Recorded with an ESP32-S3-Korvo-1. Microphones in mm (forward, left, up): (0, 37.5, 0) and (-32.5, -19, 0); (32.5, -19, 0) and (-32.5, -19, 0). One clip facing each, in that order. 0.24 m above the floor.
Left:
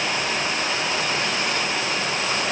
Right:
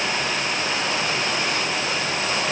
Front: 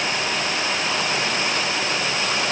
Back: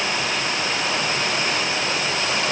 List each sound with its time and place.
Only background noise.